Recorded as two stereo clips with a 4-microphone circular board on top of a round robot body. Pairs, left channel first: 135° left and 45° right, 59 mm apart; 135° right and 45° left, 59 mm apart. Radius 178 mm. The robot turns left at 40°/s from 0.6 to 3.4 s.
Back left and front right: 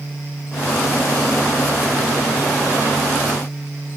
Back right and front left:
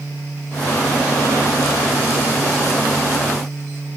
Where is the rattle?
No rattle in this recording.